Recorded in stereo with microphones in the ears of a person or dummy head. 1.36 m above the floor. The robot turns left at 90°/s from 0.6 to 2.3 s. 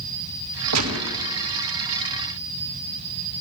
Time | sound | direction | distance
0.7 | a gunshot | 80° right | 1.7 m